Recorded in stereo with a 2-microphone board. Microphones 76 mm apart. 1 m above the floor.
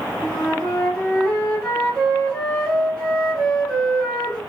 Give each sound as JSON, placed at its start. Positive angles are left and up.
{"t": 0.2, "sound": "a flute", "side_deg": 15, "distance_m": 1.5}